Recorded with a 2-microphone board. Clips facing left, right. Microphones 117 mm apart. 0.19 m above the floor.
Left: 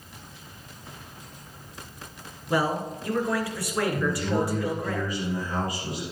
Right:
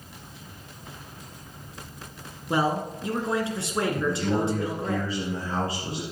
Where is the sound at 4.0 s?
30° right (ahead or behind), 2.5 m.